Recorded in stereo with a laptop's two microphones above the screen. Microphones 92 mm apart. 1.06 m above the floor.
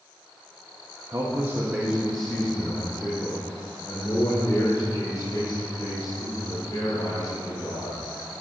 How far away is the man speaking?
About 1.5 m.